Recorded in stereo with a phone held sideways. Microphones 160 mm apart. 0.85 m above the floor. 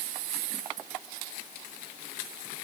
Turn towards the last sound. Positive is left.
No sound to turn to.